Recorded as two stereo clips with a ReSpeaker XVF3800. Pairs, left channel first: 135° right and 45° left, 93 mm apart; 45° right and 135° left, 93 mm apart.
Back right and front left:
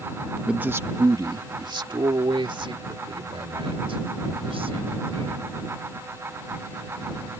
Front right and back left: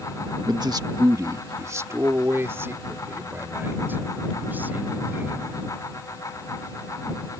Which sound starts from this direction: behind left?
A man speaking, at 0.5 s.